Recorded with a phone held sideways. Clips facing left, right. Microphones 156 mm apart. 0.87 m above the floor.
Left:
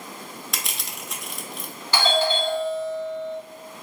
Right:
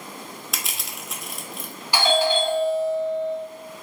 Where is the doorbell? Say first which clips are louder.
Right 2 dB; 10° right (ahead or behind), 1.0 m.